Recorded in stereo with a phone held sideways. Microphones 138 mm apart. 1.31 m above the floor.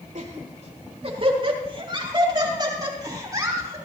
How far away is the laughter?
About 3 m.